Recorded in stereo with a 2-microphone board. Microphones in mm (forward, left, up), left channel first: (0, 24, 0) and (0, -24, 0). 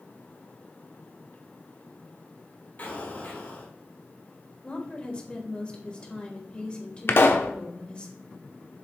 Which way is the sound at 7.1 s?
55° left (ahead or behind).